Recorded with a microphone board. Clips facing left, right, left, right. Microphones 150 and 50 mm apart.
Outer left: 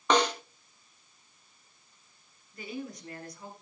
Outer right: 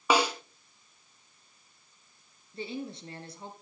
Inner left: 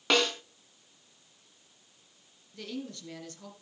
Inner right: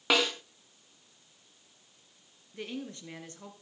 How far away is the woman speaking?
About 2.5 m.